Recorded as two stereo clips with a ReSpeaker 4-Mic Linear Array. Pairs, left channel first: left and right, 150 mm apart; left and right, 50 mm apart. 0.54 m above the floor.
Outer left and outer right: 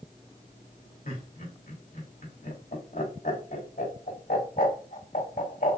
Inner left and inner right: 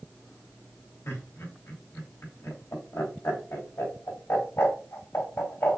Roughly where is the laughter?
Left.